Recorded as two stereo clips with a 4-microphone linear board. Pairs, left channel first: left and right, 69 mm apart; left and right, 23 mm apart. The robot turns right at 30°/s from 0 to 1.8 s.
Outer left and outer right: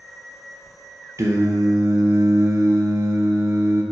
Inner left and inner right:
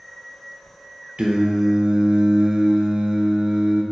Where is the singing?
45° right (ahead or behind), 0.5 m.